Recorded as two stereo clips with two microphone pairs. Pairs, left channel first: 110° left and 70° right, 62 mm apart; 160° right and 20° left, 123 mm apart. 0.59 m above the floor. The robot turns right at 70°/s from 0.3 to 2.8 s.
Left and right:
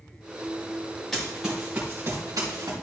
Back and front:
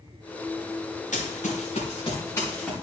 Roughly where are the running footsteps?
Behind.